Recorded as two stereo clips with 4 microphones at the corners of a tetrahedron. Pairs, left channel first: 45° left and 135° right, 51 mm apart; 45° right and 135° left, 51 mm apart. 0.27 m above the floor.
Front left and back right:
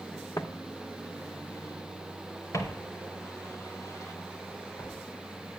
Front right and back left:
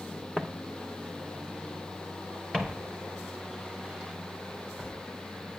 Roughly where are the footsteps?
Ahead left.